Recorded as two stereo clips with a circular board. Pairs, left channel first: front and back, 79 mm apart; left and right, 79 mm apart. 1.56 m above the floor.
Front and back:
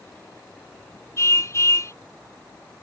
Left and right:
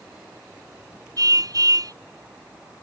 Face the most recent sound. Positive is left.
turn(degrees=-50)